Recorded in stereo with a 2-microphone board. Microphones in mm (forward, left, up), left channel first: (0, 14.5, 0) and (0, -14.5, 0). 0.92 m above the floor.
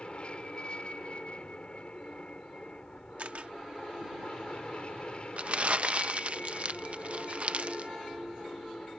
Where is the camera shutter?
55° right (ahead or behind).